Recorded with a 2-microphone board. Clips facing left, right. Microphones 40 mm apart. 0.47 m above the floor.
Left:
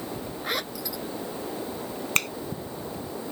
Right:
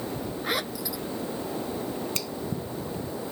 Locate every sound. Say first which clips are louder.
0.4 s a zipper: right 1 dB; 5° right (ahead or behind)
2.1 s a finger snap: left 8 dB; 55° left (ahead or behind)